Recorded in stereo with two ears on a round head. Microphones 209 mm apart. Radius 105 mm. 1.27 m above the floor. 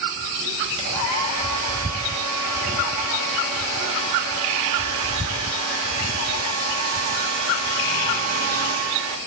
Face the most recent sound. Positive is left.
turn(degrees=-70)  # may be behind; listen again after turning